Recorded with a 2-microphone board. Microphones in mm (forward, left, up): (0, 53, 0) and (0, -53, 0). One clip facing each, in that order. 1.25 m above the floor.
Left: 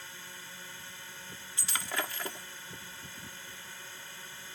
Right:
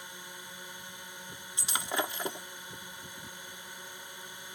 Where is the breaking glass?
20° right (ahead or behind).